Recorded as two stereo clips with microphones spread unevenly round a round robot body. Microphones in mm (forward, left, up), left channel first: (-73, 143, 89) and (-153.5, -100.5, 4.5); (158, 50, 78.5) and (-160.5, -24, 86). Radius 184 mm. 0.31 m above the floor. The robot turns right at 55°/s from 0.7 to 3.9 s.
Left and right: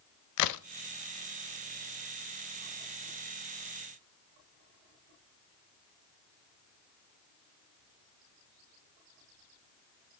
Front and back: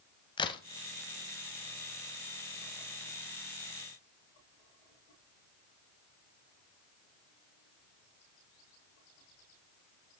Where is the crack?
90° left, 0.5 m.